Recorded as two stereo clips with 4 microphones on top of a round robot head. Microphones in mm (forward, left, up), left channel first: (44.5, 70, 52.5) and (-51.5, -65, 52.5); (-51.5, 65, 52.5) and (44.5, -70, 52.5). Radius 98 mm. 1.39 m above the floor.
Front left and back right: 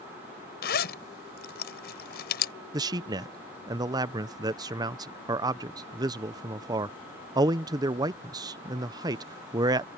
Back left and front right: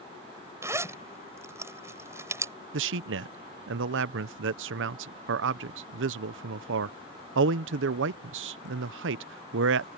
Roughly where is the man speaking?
Ahead right.